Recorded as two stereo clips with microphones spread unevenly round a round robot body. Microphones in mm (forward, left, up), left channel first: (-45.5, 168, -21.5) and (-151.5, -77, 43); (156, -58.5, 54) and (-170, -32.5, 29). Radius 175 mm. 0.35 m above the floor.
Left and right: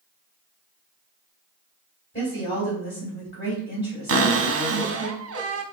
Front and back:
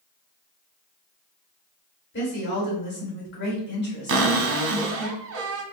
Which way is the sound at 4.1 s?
150° right.